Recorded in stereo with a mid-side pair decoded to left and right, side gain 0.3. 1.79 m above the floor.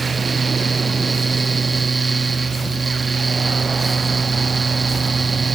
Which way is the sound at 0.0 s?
45° right.